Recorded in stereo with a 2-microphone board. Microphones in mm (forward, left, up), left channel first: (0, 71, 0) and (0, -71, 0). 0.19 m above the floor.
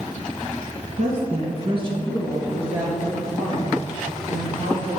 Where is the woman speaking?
55° right (ahead or behind), 1.7 m; by 5.0 s centre (ahead or behind), 4.5 m.